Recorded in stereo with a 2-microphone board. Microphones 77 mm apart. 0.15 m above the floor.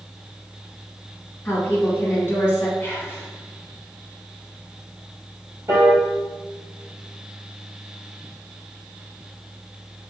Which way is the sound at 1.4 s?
35° left (ahead or behind).